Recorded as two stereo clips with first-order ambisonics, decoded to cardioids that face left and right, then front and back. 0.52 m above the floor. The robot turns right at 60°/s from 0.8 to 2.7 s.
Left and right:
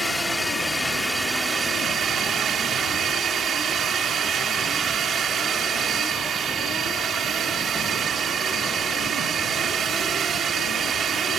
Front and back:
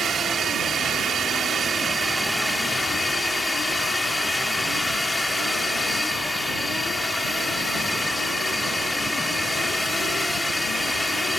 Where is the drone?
165° left; by 11.4 s 80° right.